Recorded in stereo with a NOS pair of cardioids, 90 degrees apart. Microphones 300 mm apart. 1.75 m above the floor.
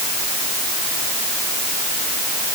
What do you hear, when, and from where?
Only background noise.